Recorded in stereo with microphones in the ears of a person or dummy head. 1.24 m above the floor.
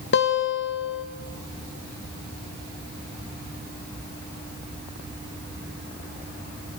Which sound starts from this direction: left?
A guitar, at 0.1 s.